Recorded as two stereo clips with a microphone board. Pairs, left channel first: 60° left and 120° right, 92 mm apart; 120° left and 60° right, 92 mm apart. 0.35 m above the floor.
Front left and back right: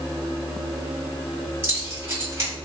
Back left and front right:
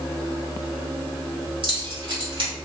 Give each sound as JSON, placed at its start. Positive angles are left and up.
{"t": 1.6, "sound": "keys jangling", "azimuth_deg": -60, "distance_m": 1.7}